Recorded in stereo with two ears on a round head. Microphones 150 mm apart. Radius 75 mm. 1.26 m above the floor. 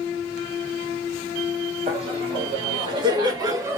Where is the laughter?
40° right (ahead or behind), 2 m; by 3.8 s 15° right (ahead or behind), 1.1 m.